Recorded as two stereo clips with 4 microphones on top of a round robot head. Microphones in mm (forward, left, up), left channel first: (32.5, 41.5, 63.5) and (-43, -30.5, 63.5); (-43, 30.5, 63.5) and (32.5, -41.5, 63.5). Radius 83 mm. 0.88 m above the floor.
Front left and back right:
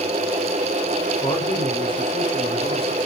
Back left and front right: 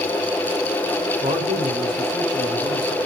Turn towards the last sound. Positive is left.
turn(degrees=10)